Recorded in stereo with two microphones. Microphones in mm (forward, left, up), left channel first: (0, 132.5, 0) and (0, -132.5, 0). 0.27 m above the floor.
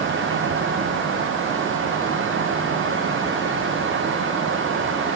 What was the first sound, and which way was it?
Only background noise.